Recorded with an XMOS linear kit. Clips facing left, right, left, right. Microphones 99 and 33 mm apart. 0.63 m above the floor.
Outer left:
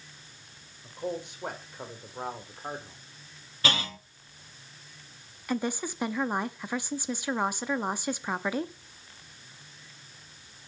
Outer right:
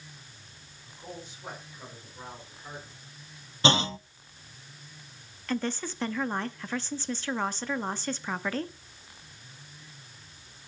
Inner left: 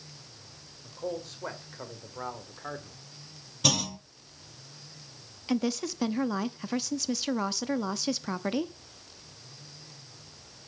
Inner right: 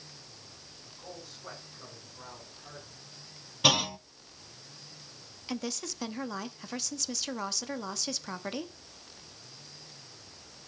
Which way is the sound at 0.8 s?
65° left (ahead or behind).